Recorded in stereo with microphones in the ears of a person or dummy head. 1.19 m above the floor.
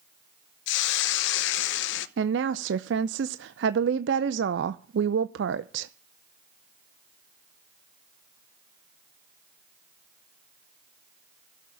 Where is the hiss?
65° left (ahead or behind), 1.0 m.